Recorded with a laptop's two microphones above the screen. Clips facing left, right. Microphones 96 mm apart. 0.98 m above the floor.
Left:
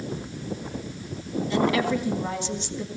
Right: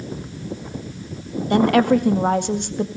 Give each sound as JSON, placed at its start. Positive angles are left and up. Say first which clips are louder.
{"t": 1.5, "sound": "a woman speaking", "louder": "right 8 dB", "side_deg": -55, "distance_m": 1.8}